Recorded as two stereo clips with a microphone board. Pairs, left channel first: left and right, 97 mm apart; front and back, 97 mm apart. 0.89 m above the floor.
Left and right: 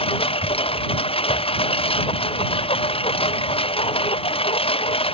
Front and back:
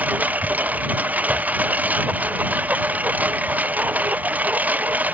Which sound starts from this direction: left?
A lawn mower, at 0.0 s.